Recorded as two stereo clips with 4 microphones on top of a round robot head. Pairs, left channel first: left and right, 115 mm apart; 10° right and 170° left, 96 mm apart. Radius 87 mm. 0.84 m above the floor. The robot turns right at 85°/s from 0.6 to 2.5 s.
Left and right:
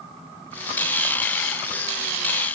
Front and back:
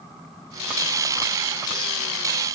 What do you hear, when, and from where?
Only background noise.